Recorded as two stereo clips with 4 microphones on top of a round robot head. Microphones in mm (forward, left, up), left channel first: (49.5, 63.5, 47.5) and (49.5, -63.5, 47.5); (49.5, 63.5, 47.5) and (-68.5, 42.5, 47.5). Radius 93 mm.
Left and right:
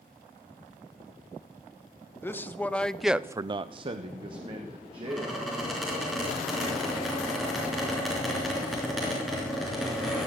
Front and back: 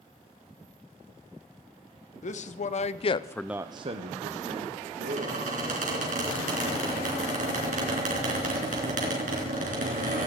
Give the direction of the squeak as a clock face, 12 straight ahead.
6 o'clock.